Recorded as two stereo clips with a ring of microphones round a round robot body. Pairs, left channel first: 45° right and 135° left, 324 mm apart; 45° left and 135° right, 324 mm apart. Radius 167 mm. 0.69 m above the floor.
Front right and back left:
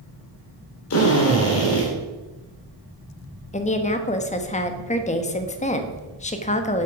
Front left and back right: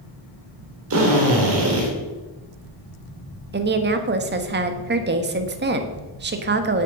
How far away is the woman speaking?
About 1.2 m.